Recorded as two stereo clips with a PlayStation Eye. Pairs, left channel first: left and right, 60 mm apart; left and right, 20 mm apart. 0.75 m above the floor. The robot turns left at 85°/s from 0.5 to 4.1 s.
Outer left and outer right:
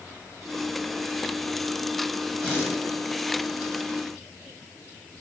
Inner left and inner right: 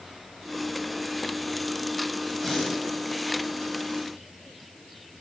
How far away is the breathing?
About 3 m.